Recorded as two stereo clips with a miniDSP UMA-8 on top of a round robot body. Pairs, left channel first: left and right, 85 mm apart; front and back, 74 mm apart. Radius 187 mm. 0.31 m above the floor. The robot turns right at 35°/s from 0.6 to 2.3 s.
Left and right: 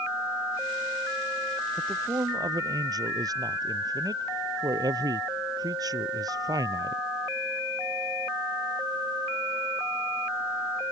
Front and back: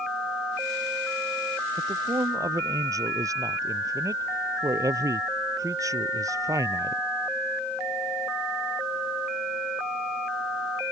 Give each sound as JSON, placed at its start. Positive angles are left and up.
{"t": 1.8, "sound": "a man speaking", "azimuth_deg": -155}